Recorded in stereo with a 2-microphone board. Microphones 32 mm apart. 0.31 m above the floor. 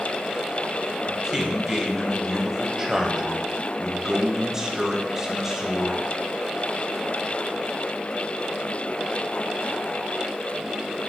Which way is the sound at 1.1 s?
15° right (ahead or behind).